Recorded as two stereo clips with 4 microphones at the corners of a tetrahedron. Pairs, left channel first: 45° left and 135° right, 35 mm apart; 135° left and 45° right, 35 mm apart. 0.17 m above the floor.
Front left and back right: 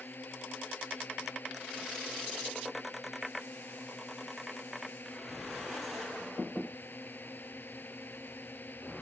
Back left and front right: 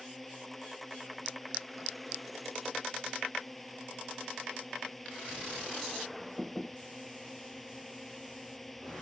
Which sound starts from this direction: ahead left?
A drone, at 0.0 s.